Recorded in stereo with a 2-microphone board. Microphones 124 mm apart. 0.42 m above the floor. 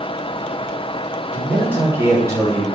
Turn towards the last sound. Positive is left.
turn(degrees=-30)  # may be behind; listen again after turning